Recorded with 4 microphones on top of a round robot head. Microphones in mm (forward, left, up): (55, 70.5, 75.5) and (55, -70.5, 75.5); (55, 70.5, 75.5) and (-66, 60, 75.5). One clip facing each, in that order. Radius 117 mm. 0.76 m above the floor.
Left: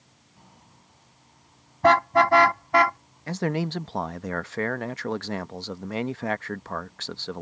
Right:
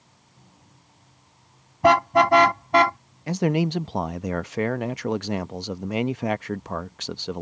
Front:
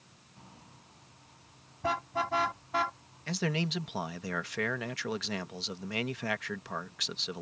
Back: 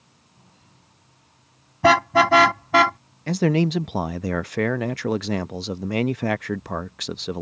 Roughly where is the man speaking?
Behind.